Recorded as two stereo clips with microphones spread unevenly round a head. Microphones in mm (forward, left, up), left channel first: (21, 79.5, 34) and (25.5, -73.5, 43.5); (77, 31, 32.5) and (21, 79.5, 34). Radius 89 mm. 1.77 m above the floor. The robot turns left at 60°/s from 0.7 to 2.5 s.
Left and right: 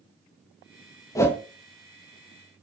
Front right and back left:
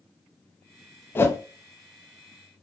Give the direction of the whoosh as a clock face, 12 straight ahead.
11 o'clock.